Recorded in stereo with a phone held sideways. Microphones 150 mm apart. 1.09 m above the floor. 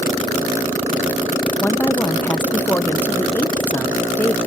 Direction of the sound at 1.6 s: 10° left (ahead or behind).